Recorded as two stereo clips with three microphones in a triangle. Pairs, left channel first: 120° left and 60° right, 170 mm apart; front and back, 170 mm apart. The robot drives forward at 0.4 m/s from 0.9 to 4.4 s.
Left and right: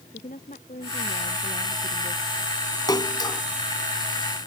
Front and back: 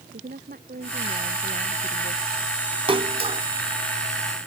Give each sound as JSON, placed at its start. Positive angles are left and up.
{"t": 0.1, "sound": "a woman speaking", "azimuth_deg": 155}
{"t": 2.9, "sound": "a splash", "azimuth_deg": 165}